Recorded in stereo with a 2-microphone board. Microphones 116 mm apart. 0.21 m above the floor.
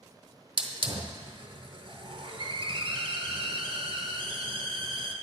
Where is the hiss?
50° right (ahead or behind), 0.6 m.